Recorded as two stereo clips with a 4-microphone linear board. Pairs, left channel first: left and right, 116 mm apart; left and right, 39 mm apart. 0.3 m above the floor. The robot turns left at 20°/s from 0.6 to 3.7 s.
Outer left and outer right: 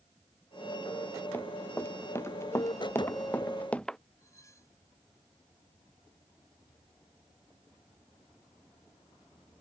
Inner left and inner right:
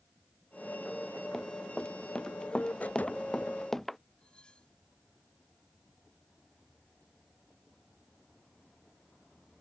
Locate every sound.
1.3 s running footsteps: 15° left (ahead or behind); by 4.0 s 5° left (ahead or behind)
4.2 s cutlery clinking: 25° left (ahead or behind)